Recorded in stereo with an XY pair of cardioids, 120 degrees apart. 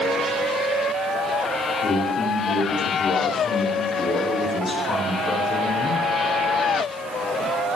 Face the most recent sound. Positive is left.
turn(degrees=25)